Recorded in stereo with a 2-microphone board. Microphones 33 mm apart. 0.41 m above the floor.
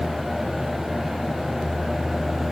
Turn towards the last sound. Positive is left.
No sound to turn to.